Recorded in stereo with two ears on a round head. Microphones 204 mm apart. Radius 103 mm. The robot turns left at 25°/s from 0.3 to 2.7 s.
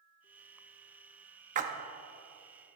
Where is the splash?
35° right (ahead or behind), 0.7 m.